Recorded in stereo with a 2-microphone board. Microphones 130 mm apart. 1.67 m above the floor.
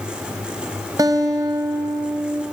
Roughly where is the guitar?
Right.